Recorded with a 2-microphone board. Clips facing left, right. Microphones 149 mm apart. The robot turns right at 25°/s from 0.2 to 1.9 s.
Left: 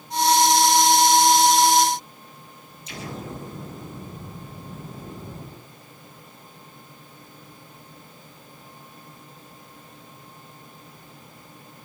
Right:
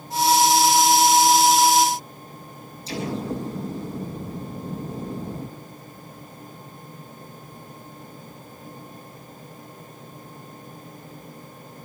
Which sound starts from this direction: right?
An explosion, at 2.9 s.